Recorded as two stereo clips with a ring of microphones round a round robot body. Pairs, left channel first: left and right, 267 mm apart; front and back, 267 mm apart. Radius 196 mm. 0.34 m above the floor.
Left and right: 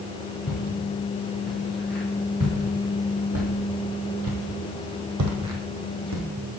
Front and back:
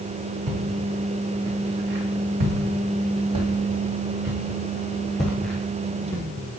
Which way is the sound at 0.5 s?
Straight behind.